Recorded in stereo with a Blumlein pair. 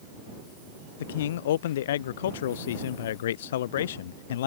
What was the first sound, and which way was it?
A man speaking, 60° left.